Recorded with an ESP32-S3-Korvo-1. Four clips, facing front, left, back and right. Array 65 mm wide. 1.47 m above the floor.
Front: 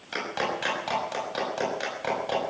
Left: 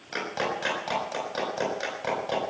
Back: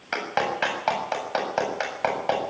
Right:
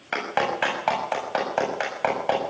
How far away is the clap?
About 8 m.